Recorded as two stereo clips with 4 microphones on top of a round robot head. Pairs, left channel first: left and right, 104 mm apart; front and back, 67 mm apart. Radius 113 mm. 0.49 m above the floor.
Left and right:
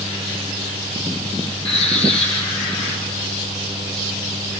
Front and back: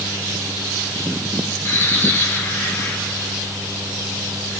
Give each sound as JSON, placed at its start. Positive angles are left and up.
{"t": 1.6, "sound": "a bird", "azimuth_deg": 60, "distance_m": 4.0}